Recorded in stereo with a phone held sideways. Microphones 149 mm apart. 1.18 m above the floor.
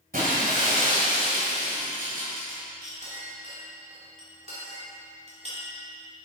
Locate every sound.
0.1 s breaking glass: 75° right (ahead or behind), 2.5 m
2.8 s a clink: 50° right (ahead or behind), 2.5 m